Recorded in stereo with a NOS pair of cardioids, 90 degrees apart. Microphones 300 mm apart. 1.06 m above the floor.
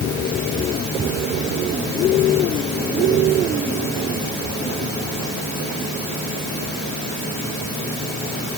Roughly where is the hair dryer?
I don't hear a hair dryer.